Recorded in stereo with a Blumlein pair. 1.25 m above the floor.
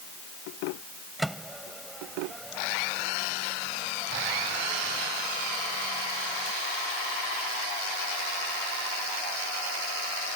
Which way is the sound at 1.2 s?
5° right.